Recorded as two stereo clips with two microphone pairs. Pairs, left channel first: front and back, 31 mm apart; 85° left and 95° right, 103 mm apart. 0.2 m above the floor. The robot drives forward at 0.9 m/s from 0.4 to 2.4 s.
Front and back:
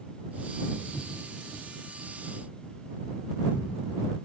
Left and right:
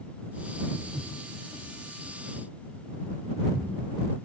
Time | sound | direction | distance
0.8 | footsteps | 150° right | 2.5 m